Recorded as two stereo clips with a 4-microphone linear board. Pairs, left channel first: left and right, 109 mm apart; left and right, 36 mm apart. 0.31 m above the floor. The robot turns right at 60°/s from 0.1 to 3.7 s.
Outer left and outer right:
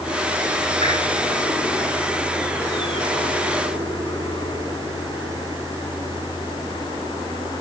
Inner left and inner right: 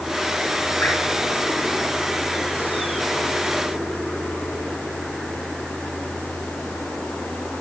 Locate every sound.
0.8 s dripping: 65° left (ahead or behind), 3.5 m; by 1.0 s 70° left (ahead or behind), 3.5 m